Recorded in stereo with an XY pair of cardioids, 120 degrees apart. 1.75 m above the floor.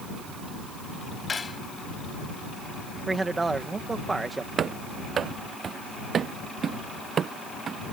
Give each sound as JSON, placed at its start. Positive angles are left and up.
{"t": 1.3, "sound": "cutlery clinking", "azimuth_deg": 25}
{"t": 3.1, "sound": "a man speaking", "azimuth_deg": -20}
{"t": 4.6, "sound": "running footsteps", "azimuth_deg": -45}